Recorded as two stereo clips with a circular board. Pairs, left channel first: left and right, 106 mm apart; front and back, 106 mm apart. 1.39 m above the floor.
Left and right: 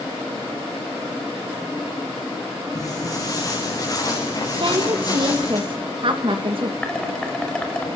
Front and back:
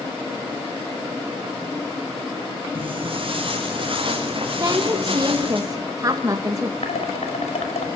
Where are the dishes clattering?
10° left, 4.5 m.